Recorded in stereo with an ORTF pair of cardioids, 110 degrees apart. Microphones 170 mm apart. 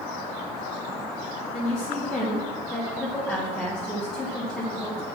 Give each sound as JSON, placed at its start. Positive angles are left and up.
{"t": 1.5, "sound": "a woman speaking", "azimuth_deg": 0, "distance_m": 1.8}